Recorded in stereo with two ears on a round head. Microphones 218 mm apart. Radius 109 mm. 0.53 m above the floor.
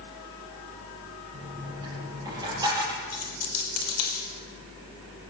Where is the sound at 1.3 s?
15° right (ahead or behind), 4.5 m.